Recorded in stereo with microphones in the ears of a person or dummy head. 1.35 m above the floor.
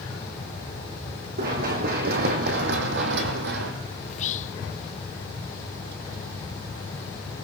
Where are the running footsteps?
55° right (ahead or behind), 5 m; by 3.7 s 65° right (ahead or behind), 3 m.